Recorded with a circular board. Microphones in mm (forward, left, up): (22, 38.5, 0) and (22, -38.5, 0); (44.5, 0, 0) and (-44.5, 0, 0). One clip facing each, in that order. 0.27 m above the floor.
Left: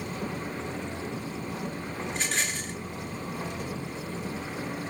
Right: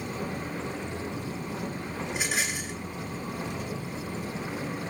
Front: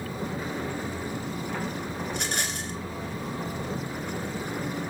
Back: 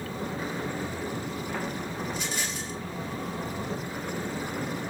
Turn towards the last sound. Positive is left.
turn(degrees=-10)